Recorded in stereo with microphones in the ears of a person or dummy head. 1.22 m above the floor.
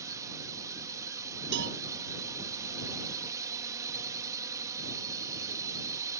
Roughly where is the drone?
Centre.